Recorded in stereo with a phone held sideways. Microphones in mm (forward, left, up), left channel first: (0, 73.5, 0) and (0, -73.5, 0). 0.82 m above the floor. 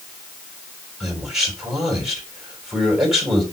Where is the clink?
I don't hear a clink.